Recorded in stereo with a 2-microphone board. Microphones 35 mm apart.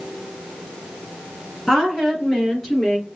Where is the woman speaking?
Centre (ahead or behind), 3.5 m; by 3.0 s 15° left (ahead or behind), 3.5 m.